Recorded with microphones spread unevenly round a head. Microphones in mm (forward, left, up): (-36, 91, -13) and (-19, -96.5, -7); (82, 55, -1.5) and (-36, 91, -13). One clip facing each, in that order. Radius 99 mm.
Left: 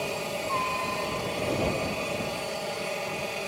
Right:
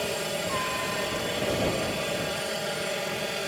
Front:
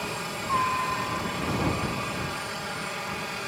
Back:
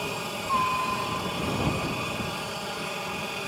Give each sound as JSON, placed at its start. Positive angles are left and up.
{"t": 0.0, "sound": "a helicopter", "azimuth_deg": -145}